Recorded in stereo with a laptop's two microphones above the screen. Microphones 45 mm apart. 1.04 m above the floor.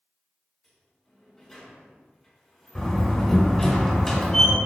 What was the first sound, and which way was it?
A sliding door, 5° left (ahead or behind).